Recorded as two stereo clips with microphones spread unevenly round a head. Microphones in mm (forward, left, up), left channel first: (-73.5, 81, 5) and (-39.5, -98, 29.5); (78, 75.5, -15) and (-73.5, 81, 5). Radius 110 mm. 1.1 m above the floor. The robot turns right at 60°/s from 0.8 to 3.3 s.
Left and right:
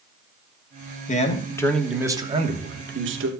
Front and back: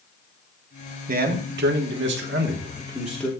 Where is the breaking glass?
I don't hear breaking glass.